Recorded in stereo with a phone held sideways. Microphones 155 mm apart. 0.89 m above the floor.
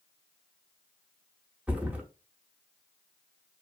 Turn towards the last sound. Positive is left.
turn(degrees=-10)  # may be behind; listen again after turning